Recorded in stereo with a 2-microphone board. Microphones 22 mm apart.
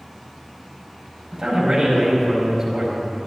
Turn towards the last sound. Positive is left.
turn(degrees=-20)  # may be behind; listen again after turning